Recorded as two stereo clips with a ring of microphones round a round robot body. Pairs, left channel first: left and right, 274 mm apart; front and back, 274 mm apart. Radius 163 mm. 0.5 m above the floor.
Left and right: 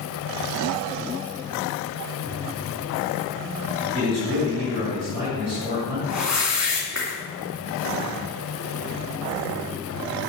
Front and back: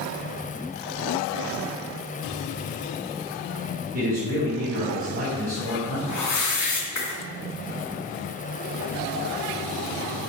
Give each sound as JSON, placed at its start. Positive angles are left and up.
{"t": 3.9, "sound": "a man speaking", "azimuth_deg": -120, "distance_m": 2.5}
{"t": 6.1, "sound": "a whoosh", "azimuth_deg": -5, "distance_m": 2.5}